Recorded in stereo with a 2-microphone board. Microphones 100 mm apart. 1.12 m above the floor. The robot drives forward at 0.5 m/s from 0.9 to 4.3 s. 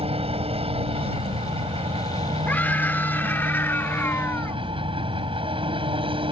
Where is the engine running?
75° right (ahead or behind); by 6.3 s 60° right (ahead or behind).